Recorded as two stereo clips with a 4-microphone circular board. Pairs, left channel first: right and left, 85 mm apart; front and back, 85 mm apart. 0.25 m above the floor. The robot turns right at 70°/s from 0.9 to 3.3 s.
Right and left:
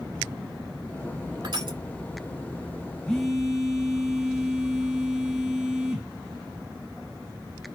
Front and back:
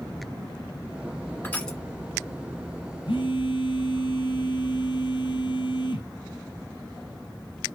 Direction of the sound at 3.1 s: 10° right.